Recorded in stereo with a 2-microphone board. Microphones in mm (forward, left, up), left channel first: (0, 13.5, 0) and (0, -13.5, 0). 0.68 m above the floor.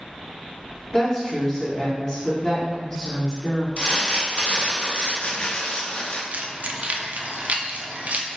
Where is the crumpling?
45° left (ahead or behind), 0.9 m.